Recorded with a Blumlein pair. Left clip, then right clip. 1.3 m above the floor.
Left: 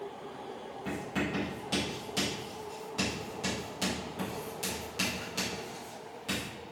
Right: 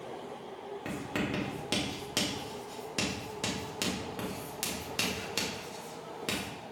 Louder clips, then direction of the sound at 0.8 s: Left 1 dB; 65° right.